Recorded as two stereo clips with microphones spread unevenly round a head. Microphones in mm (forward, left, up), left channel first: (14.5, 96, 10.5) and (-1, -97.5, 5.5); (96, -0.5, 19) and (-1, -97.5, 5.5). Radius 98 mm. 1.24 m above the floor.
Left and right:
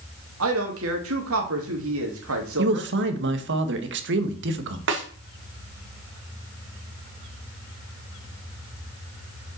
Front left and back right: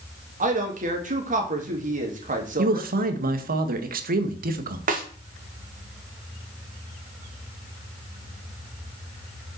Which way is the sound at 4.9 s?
120° right.